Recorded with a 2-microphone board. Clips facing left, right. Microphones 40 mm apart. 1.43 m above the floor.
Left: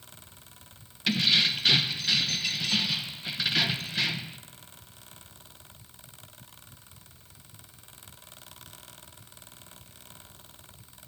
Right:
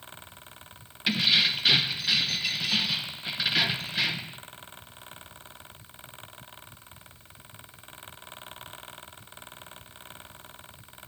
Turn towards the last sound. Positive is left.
turn(degrees=-5)  # may be behind; listen again after turning